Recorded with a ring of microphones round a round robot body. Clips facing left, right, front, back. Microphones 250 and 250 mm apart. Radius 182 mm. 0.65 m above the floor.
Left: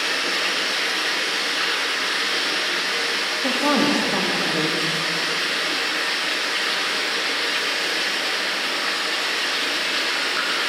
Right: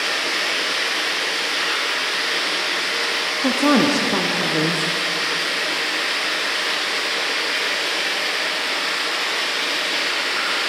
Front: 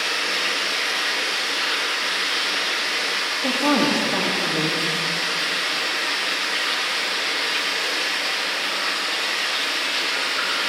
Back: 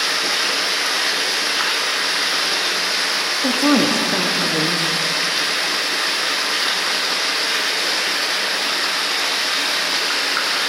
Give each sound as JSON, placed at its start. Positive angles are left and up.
{"t": 0.0, "sound": "running water", "azimuth_deg": 170, "distance_m": 2.5}
{"t": 3.4, "sound": "a woman speaking", "azimuth_deg": -135, "distance_m": 0.9}